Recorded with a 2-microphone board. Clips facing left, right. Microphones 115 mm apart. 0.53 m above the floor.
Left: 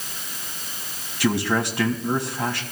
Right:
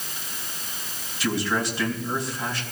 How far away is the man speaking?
About 3 m.